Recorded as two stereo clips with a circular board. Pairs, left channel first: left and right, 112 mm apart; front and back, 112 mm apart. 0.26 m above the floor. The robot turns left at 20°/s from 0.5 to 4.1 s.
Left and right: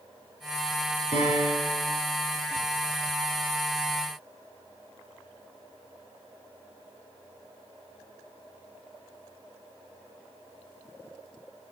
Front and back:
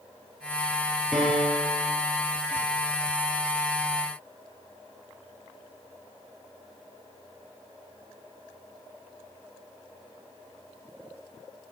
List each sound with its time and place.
1.1 s a piano: 90° left, 3.5 m; by 1.9 s 75° left, 3.5 m